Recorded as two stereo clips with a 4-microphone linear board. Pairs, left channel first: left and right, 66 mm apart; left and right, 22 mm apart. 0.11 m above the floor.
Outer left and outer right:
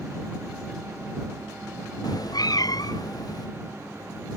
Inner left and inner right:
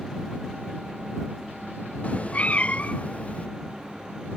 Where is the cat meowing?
80° left; by 3.5 s 70° left (ahead or behind).